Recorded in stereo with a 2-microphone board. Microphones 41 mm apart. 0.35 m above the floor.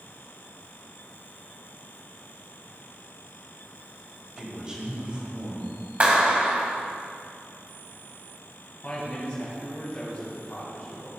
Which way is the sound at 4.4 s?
10° right (ahead or behind).